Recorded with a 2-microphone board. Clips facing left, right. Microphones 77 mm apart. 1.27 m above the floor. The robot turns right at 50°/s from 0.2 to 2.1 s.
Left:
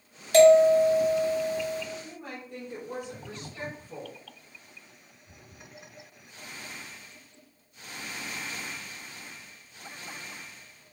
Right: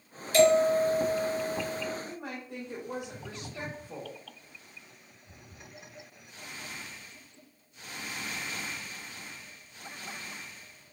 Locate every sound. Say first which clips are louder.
0.3 s a bell: left 6 dB; 75° left, 1.0 m; by 1.8 s 150° left, 1.0 m
2.0 s a woman speaking: right 2 dB; 60° right (ahead or behind), 1.0 m; by 4.2 s 65° right (ahead or behind), 1.0 m